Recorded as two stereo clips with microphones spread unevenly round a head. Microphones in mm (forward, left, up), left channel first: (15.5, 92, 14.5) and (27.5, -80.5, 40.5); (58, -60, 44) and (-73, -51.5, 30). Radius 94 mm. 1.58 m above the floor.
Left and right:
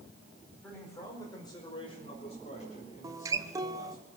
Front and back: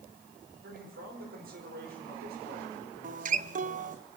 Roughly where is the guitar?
Behind right.